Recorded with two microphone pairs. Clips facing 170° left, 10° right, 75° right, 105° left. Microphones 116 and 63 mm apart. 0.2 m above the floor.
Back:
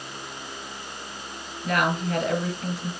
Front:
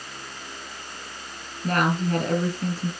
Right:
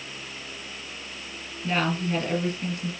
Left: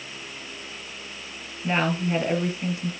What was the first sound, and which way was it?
A woman speaking, 40° left.